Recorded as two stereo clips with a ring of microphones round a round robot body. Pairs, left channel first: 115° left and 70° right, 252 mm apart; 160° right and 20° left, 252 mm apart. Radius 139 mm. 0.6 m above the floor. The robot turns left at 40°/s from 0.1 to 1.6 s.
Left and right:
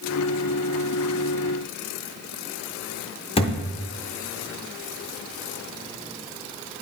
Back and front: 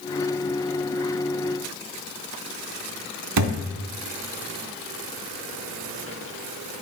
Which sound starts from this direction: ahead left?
A thud, at 3.4 s.